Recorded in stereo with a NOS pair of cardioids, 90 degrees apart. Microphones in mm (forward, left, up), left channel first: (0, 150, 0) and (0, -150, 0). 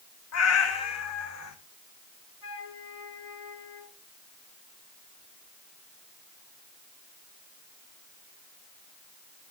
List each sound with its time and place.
0.3 s a cat meowing: 60° left, 3 m; by 1.6 s 65° left, 4 m
2.4 s a flute: 50° left, 5 m